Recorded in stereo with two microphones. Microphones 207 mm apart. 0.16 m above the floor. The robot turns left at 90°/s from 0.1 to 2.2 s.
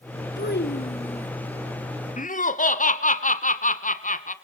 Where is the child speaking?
95° left, 1.5 m; by 1.3 s 10° left, 1.5 m.